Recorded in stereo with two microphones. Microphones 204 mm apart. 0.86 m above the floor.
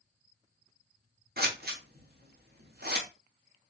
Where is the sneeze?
No sneeze in this recording.